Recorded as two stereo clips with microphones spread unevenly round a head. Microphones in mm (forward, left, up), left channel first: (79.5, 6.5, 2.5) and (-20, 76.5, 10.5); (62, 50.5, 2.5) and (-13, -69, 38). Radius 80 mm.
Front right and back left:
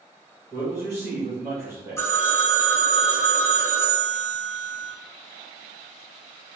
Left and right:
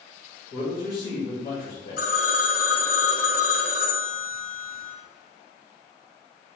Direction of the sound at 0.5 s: 75° left.